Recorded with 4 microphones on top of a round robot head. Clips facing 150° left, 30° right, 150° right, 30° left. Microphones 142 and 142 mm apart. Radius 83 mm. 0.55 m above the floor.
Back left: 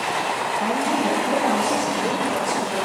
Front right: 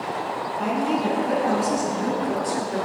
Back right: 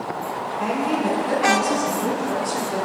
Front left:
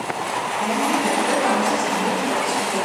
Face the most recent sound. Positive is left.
turn(degrees=-80)